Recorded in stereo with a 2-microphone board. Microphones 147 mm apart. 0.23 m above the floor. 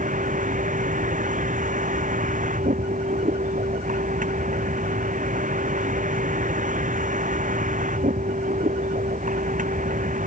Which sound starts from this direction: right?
A vehicle, at 0.0 s.